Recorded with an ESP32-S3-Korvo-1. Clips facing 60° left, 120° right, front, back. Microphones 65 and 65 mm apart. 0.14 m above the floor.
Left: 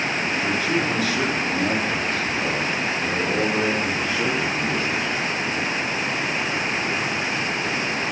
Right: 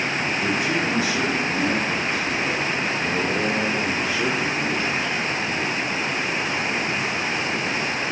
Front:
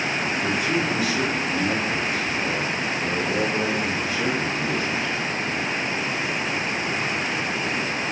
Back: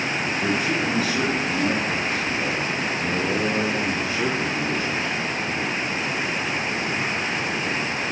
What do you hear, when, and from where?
0.4 s a man speaking: straight behind, 2.5 m; by 5.2 s 155° left, 4.5 m